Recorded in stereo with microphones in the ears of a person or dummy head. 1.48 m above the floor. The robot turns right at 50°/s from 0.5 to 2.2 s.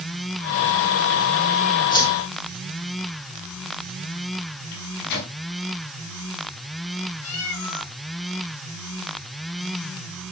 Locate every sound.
1.9 s a whoosh: 25° left (ahead or behind), 2 m; by 2.1 s 15° left (ahead or behind), 2 m
4.7 s a microwave: 50° left (ahead or behind), 5 m
7.2 s a cat meowing: 80° left, 7 m